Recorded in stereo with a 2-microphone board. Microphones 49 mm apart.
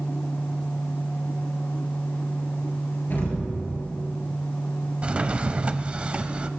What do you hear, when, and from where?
3.1 s an explosion: 45° left (ahead or behind), 5 m
5.0 s a drawer: 25° right (ahead or behind), 0.7 m